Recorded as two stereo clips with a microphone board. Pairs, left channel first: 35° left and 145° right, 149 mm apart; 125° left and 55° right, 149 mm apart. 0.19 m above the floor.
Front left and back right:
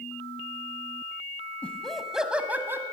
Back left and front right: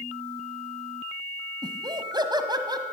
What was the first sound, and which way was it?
Laughter, 40° right.